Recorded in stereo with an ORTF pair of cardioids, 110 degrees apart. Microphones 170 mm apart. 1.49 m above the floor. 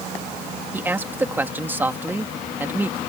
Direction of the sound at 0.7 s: 10° right.